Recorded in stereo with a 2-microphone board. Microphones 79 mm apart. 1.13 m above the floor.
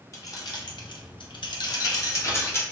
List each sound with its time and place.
0.1 s keys jangling: 45° left (ahead or behind), 0.7 m; by 2.6 s 30° left (ahead or behind), 0.9 m